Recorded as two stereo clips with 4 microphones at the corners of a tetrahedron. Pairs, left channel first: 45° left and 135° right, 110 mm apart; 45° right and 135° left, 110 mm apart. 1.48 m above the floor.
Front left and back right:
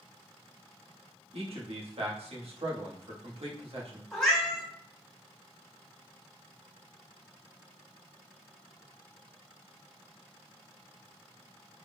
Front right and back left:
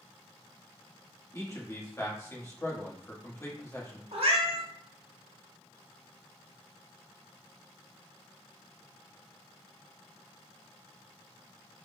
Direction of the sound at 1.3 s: 110° right.